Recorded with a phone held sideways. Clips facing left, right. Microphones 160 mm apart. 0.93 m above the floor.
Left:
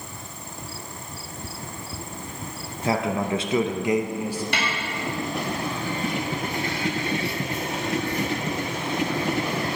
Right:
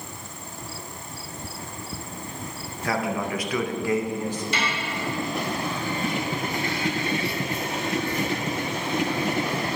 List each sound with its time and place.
2.8 s a man speaking: 20° left (ahead or behind), 0.7 m; by 4.4 s 10° left (ahead or behind), 0.8 m
4.5 s a snare drum: 60° left (ahead or behind), 1.5 m